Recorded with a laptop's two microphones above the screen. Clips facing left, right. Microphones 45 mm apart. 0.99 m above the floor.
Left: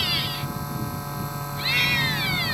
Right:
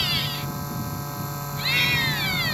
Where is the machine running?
5° left (ahead or behind).